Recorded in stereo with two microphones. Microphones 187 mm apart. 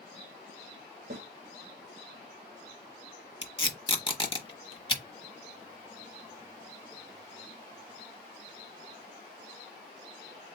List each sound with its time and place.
1.1 s a snare drum: 80° right, 2.5 m
3.4 s tape being pulled: 30° left (ahead or behind), 0.9 m